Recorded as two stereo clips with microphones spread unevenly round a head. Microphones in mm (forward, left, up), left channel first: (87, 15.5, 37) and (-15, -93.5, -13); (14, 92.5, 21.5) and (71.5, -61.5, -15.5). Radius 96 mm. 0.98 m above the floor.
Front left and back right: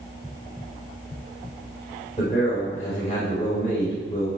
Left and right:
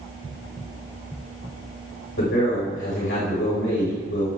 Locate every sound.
2.2 s a man speaking: 110° left, 4.5 m